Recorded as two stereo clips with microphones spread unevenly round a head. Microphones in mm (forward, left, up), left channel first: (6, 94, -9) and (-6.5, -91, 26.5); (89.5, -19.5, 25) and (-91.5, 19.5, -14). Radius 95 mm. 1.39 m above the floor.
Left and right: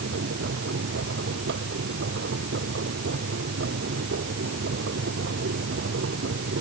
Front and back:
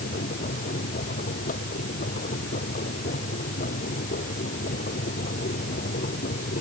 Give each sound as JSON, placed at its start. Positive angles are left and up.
{"t": 0.0, "sound": "a machine running", "azimuth_deg": -60}